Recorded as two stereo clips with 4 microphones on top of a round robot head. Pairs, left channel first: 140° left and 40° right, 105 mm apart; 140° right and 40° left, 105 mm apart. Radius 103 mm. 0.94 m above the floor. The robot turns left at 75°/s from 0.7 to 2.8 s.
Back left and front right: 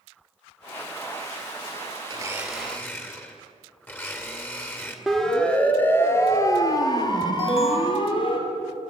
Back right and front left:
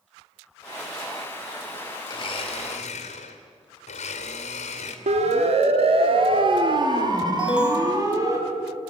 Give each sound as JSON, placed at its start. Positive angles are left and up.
{"t": 2.1, "sound": "a blender", "azimuth_deg": -95, "distance_m": 2.5}
{"t": 5.1, "sound": "a siren", "azimuth_deg": 50, "distance_m": 2.0}
{"t": 7.4, "sound": "an alarm", "azimuth_deg": 120, "distance_m": 2.5}